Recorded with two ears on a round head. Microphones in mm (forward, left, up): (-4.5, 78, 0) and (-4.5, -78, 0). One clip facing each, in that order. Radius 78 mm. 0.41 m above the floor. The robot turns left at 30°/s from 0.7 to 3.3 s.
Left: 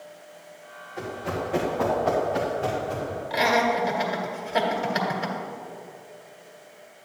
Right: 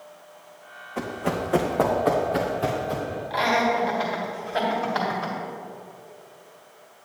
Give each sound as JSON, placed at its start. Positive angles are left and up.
{"t": 1.0, "sound": "running footsteps", "side_deg": -70, "distance_m": 1.7}
{"t": 3.3, "sound": "laughter", "side_deg": 20, "distance_m": 1.8}